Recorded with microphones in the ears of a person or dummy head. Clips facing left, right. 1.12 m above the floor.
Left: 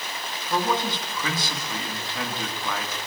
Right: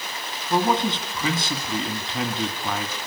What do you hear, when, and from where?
0.5 s a man speaking: 15° right (ahead or behind), 2 m